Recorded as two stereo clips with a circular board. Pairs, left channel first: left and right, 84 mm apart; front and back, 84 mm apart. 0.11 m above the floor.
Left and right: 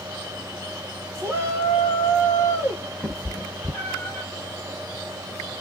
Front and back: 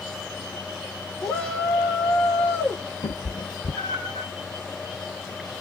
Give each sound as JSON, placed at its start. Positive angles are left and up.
{"t": 1.2, "sound": "a shout", "azimuth_deg": -65, "distance_m": 1.6}
{"t": 3.0, "sound": "a cat meowing", "azimuth_deg": 15, "distance_m": 0.9}